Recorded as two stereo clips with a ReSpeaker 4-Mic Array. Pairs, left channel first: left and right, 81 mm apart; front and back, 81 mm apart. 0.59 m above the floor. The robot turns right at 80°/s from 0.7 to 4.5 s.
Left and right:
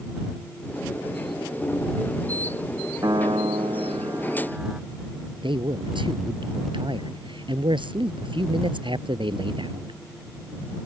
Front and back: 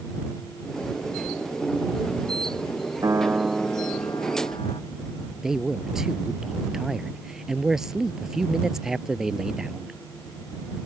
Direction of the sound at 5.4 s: 95° right.